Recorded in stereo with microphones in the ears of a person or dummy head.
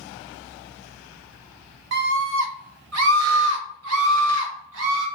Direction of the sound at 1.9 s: 55° right (ahead or behind).